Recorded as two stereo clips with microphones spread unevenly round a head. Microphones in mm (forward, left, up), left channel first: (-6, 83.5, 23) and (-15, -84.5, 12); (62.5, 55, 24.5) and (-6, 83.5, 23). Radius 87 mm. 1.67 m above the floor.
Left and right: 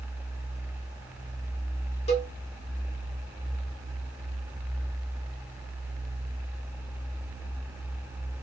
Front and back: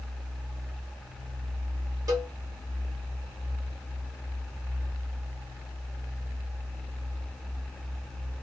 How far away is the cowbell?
About 1.4 m.